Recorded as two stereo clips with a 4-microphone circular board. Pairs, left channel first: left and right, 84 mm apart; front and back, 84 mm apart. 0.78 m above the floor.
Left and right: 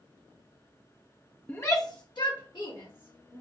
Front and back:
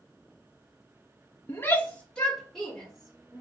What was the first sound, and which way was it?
A shout, 30° left.